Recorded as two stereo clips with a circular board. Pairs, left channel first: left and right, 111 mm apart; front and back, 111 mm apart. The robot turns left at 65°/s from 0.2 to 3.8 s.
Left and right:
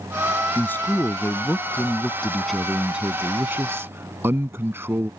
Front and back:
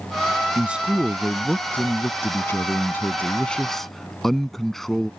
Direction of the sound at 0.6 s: 130° left.